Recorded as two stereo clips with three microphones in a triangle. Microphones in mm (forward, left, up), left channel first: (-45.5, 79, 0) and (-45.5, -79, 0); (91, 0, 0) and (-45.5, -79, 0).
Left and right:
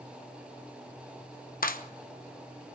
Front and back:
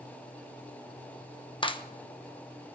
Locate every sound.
1.6 s a clap: 85° left, 1.0 m